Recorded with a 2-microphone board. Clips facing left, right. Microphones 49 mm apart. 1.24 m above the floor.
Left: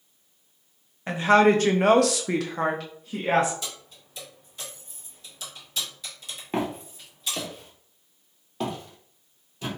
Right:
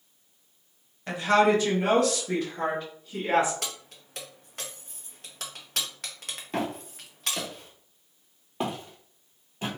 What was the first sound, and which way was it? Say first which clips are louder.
A woman speaking: left 3 dB; 25° left (ahead or behind).